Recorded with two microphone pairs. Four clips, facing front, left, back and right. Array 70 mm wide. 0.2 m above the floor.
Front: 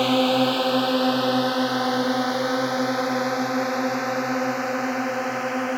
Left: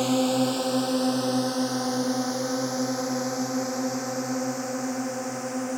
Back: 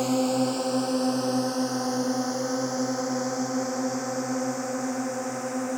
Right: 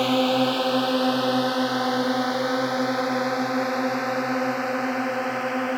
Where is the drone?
35° right; by 5.8 s 40° right.